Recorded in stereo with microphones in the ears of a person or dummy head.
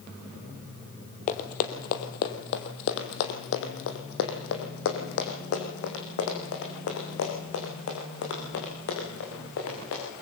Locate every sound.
1.3 s running footsteps: 45° left (ahead or behind), 2.0 m; by 10.2 s 75° left (ahead or behind), 7.5 m